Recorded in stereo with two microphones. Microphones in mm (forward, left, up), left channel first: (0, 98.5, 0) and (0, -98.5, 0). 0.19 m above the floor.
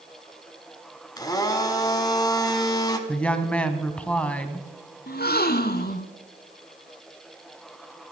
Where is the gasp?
50° left (ahead or behind), 0.7 m.